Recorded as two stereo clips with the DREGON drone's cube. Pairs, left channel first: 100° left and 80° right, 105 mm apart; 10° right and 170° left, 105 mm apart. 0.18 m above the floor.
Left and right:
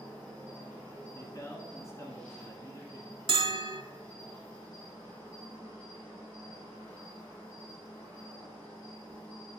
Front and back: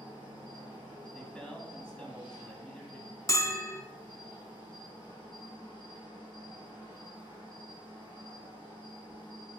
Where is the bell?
65° right, 0.6 m.